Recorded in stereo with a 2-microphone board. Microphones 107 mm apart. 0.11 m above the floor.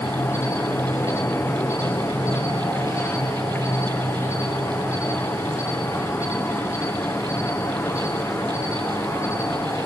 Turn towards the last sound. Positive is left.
turn(degrees=20)  # may be behind; listen again after turning